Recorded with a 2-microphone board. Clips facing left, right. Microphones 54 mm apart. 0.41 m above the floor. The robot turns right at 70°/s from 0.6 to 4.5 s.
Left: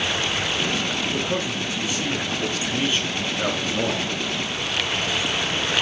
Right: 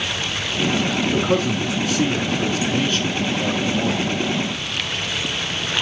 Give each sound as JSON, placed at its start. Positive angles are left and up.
{"t": 1.1, "sound": "a man speaking", "azimuth_deg": -115, "distance_m": 5.0}